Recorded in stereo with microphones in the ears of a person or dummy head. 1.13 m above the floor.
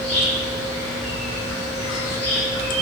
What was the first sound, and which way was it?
An insect, 40° left (ahead or behind).